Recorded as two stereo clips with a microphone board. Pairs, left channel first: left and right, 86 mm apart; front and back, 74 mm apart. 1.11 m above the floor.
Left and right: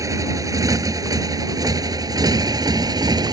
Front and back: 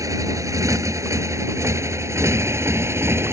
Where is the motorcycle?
140° right; by 3.3 s 125° right.